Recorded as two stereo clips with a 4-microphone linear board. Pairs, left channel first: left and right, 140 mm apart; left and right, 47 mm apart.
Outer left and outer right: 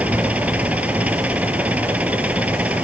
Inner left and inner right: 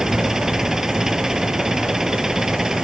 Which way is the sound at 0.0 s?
10° right (ahead or behind).